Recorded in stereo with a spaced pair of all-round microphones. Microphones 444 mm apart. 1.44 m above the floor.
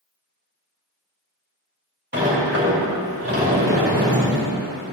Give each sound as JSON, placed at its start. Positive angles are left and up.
{"t": 2.1, "sound": "a sliding door", "side_deg": -25, "distance_m": 3.5}